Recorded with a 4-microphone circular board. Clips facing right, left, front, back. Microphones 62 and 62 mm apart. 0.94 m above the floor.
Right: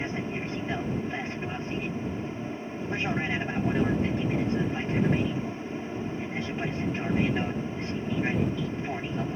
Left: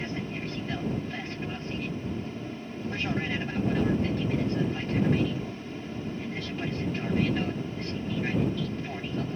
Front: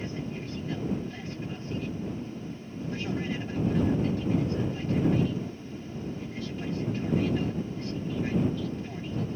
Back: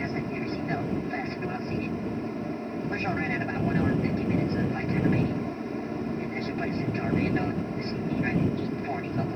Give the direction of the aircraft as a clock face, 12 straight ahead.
5 o'clock.